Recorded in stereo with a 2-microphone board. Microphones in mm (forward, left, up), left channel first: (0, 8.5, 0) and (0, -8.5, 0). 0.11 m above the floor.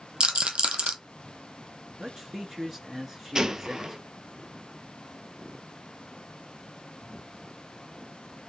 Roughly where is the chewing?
No chewing in this recording.